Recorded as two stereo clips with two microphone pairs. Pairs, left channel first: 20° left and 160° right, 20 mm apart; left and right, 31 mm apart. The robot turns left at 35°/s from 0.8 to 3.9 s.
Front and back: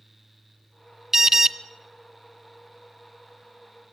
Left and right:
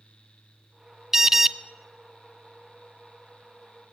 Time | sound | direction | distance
1.1 | an alarm | 155° right | 0.6 m